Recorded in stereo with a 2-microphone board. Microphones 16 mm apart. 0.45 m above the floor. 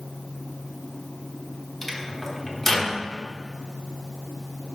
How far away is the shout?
No shout in this recording.